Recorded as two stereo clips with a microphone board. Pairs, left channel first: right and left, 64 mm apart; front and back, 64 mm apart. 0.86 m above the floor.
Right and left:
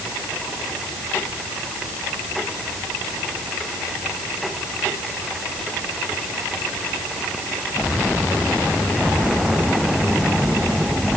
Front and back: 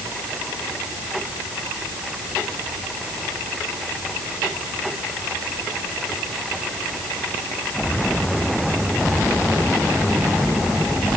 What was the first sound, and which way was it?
Only background noise.